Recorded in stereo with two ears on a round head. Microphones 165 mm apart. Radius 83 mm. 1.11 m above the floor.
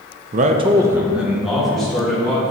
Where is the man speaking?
45° right (ahead or behind), 0.5 m; by 2.5 s 5° left (ahead or behind), 3 m.